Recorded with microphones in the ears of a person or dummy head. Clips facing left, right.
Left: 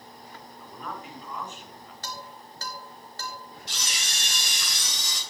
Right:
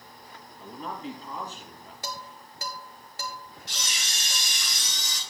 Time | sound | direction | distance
0.6 | a man speaking | 20° right (ahead or behind) | 2.5 m
2.0 | dishes clattering | 10° right (ahead or behind) | 1.0 m
3.7 | a camera shutter | 65° left (ahead or behind) | 5 m